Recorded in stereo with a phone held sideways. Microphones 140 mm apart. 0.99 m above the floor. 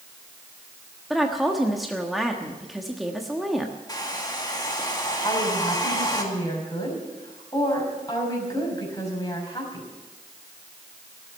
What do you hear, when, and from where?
1.1 s a woman speaking: centre (ahead or behind), 1.3 m
3.9 s a hair dryer: 25° left (ahead or behind), 2 m
5.2 s a woman speaking: 25° left (ahead or behind), 5.5 m